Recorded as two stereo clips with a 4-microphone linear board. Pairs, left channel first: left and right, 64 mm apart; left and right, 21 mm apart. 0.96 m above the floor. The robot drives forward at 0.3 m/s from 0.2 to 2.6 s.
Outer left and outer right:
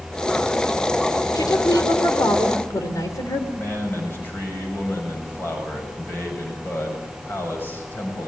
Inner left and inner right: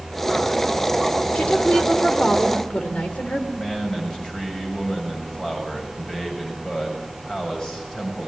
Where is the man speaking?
35° left (ahead or behind), 6.5 m.